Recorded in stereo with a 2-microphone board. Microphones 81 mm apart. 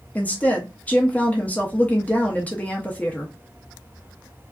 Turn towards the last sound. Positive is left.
turn(degrees=20)  # may be behind; listen again after turning